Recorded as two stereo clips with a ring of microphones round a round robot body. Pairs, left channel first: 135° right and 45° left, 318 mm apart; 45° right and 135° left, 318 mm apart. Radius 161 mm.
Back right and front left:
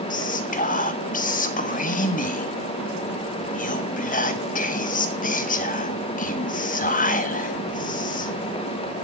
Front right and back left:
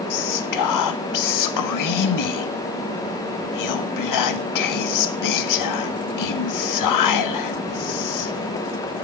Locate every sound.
0.1 s whispering: 70° right, 1.4 m